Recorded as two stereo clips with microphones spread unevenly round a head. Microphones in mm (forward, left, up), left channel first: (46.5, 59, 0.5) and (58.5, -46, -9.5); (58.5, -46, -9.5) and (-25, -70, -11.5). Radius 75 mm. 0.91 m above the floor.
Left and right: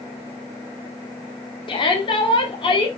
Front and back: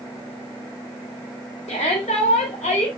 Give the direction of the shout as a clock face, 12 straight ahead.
10 o'clock.